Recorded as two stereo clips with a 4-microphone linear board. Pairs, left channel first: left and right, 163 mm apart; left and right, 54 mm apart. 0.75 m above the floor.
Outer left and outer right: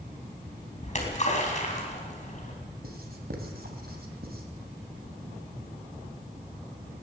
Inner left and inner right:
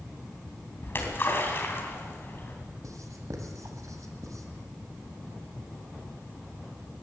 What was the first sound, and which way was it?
A splash, 45° left (ahead or behind).